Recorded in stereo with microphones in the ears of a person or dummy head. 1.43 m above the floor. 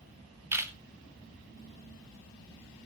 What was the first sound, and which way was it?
A camera shutter, 15° right (ahead or behind).